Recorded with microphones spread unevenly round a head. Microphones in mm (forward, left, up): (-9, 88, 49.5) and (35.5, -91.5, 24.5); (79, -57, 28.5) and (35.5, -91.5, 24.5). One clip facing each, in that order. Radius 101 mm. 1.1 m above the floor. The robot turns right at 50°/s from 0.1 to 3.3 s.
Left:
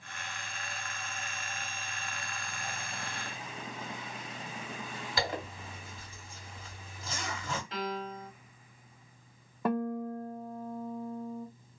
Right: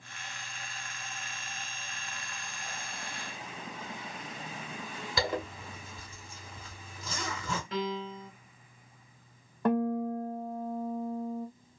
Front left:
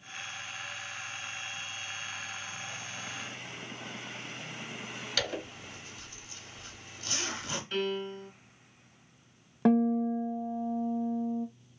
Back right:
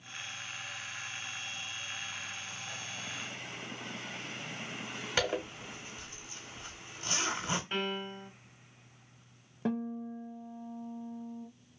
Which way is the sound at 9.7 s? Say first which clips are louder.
Right 4 dB, front left 10 dB; 15° left.